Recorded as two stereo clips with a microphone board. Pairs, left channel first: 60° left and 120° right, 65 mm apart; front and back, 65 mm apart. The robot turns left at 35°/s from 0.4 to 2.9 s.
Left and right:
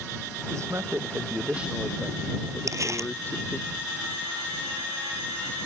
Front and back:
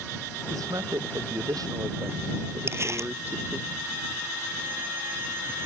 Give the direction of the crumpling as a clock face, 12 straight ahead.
5 o'clock.